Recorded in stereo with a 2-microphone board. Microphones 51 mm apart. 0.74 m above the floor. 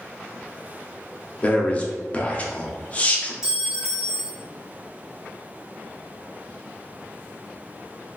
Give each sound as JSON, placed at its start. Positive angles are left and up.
{"t": 1.4, "sound": "a man speaking", "side_deg": 25, "distance_m": 0.6}
{"t": 3.4, "sound": "a clink", "side_deg": -10, "distance_m": 0.9}